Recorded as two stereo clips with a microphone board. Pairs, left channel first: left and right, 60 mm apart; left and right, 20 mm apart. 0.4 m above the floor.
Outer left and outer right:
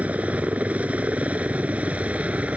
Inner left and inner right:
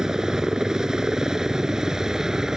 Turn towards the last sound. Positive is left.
turn(degrees=-25)  # may be behind; listen again after turning